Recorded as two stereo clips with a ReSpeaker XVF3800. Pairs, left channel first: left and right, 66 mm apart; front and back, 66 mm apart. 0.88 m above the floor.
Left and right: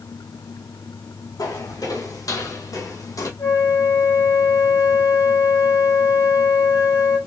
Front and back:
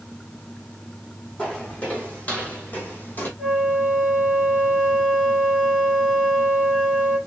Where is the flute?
70° left, 3 m.